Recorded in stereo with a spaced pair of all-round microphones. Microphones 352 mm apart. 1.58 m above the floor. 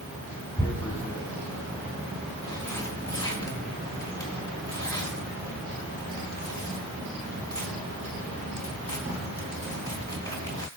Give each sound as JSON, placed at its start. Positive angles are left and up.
{"t": 0.6, "sound": "tearing paper", "side_deg": 10, "distance_m": 3.0}